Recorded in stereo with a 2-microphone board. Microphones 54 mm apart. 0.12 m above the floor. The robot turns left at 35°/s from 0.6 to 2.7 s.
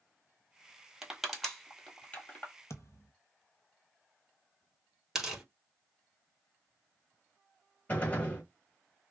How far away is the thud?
About 0.8 m.